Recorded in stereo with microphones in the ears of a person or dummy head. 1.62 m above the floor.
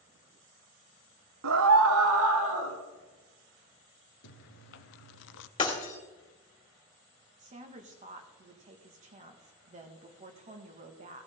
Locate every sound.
1.4 s a scream: 70° right (ahead or behind), 0.7 m; by 2.8 s 75° right (ahead or behind), 1.3 m
4.2 s chewing: 65° left (ahead or behind), 0.6 m
5.6 s breaking glass: 25° left (ahead or behind), 2.5 m
7.4 s a woman speaking: 35° right (ahead or behind), 1.9 m